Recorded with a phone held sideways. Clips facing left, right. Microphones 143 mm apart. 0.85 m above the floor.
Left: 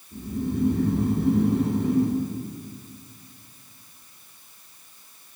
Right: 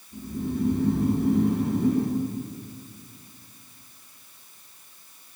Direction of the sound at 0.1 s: 80° left.